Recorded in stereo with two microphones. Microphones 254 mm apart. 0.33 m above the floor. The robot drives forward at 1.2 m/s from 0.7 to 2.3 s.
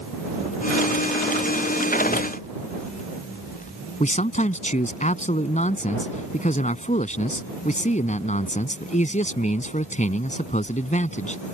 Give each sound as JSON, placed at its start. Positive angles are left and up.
{"t": 4.0, "sound": "a man speaking", "side_deg": 30}